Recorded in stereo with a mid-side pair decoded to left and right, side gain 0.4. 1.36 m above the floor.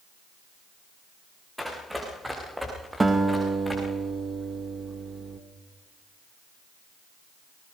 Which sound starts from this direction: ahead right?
A guitar, at 3.0 s.